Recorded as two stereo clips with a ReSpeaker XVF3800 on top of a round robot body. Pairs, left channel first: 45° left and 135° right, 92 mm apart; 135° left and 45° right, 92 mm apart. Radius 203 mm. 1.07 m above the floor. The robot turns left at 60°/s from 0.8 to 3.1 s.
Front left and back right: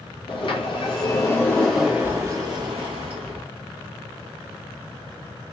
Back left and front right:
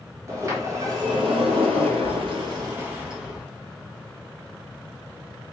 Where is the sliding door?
15° left, 1.3 m; by 3.5 s 125° right, 1.3 m.